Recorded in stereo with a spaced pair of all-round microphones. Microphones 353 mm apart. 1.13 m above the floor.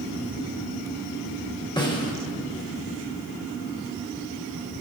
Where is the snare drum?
10° left (ahead or behind), 1.4 m.